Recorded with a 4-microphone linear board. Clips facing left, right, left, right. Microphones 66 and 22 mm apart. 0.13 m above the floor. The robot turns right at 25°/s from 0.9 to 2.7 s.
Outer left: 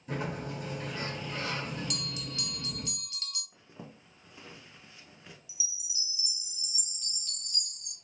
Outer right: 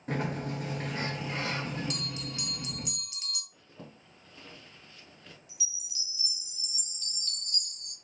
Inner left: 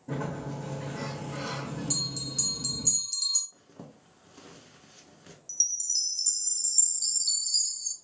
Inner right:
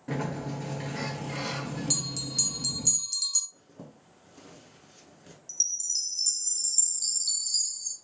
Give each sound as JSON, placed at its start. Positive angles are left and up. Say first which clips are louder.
{"t": 0.1, "sound": "a sliding door", "louder": "outer right 3 dB, inner right 2 dB", "azimuth_deg": -70, "distance_m": 1.0}
{"t": 1.9, "sound": "a bell", "louder": "outer right 1 dB, even", "side_deg": -35, "distance_m": 0.6}
{"t": 3.5, "sound": "a zipper", "louder": "outer left 1 dB, even", "side_deg": 15, "distance_m": 0.6}
{"t": 5.5, "sound": "a chime", "louder": "even, inner left 1 dB", "side_deg": 5, "distance_m": 0.6}